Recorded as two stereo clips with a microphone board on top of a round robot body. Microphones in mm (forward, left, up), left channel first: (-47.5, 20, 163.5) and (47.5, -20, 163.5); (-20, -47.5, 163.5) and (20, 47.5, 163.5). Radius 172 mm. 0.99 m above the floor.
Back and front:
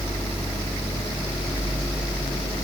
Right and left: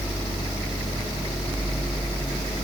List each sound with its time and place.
Only background noise.